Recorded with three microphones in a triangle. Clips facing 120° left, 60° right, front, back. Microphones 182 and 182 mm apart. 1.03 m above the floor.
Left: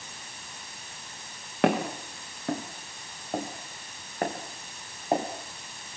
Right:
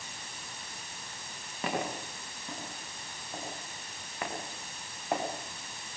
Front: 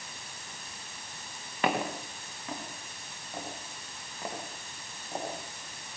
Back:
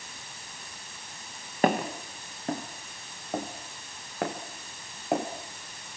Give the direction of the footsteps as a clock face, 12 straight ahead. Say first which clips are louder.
Left 9 dB, back 5 dB; 8 o'clock.